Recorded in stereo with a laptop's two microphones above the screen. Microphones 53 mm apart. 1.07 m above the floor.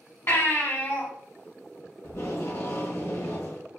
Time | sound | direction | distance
0.3 | a baby crying | 40° left (ahead or behind) | 2 m
2.0 | tape being pulled | 60° left (ahead or behind) | 1.4 m